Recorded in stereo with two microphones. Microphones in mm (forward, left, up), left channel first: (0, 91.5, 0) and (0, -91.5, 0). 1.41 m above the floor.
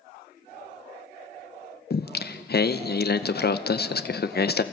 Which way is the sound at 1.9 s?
60° left (ahead or behind).